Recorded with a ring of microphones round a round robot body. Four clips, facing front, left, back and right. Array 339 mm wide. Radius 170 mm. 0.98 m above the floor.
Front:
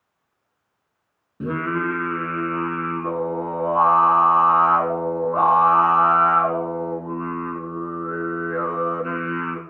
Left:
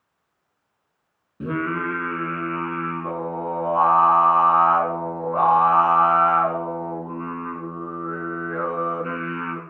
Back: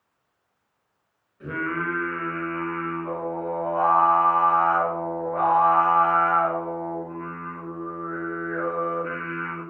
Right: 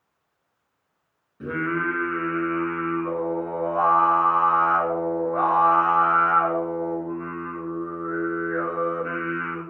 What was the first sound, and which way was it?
Singing, 25° left.